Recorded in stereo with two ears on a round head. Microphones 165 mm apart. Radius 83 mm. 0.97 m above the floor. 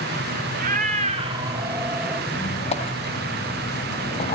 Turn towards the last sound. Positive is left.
turn(degrees=35)  # may be behind; listen again after turning